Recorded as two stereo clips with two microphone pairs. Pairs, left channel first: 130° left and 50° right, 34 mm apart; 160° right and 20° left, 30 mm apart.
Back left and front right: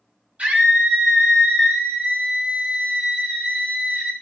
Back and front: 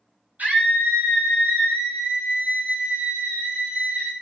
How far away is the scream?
About 7 m.